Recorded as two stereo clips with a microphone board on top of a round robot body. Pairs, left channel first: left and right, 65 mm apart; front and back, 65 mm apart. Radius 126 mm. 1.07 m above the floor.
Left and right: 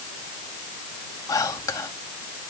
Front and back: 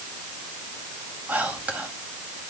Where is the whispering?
115° left, 2 m.